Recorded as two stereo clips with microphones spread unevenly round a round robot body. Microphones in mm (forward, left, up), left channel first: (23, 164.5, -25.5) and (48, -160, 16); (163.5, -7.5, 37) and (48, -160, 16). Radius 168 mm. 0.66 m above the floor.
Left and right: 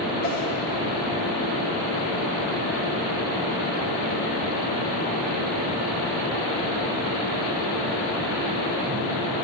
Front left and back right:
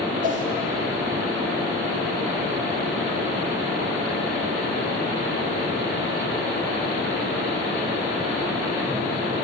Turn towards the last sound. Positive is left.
turn(degrees=-80)